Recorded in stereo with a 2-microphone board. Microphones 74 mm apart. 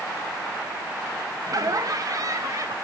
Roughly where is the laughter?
Right.